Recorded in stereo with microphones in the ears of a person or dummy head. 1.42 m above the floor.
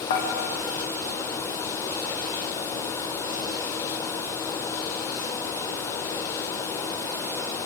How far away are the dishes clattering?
About 0.9 m.